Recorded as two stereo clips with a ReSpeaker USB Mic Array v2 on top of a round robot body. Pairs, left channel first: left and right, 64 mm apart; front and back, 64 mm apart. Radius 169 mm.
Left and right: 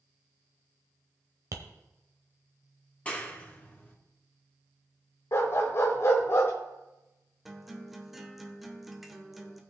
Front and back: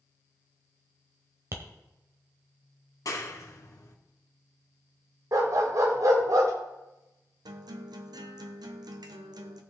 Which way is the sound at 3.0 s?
25° left.